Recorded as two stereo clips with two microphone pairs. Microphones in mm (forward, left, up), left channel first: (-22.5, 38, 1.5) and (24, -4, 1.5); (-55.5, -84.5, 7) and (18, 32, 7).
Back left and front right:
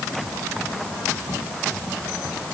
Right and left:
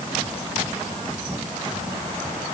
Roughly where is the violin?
I don't hear a violin.